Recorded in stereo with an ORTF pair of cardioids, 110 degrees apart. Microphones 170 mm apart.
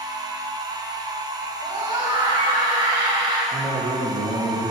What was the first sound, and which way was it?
A machine running, 25° right.